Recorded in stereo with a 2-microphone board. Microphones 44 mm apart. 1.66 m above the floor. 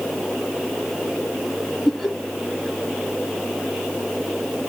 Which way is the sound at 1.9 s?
10° left (ahead or behind).